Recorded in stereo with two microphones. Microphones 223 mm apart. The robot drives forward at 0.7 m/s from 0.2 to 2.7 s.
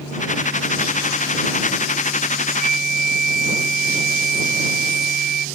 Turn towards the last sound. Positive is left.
turn(degrees=40)  # may be behind; listen again after turning